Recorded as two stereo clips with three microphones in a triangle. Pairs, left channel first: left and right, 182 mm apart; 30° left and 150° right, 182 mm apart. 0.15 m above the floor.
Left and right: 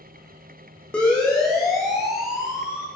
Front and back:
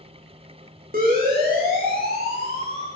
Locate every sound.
0.9 s a siren: 175° left, 9 m; by 2.9 s 175° right, 8 m